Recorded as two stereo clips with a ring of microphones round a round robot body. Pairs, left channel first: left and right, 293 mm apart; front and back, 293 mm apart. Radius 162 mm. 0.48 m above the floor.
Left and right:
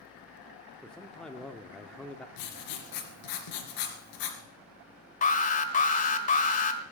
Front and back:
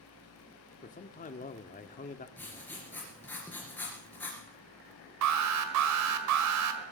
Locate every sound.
0.8 s a man speaking: 5° left, 0.7 m
2.4 s writing: 85° left, 2.5 m
5.2 s an alarm: 150° left, 1.5 m